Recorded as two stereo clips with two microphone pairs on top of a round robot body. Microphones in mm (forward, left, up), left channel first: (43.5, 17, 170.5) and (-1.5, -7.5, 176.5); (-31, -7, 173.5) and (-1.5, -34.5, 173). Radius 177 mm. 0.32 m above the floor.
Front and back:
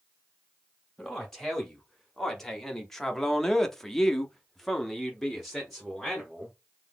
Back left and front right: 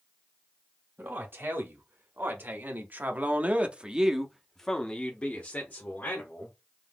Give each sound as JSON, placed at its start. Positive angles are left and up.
{"t": 1.0, "sound": "a man speaking", "azimuth_deg": -50, "distance_m": 2.0}